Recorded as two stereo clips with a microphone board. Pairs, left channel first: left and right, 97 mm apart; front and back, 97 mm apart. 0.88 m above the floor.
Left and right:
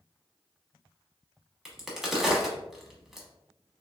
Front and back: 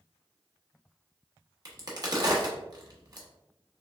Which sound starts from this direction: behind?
A crack, at 1.6 s.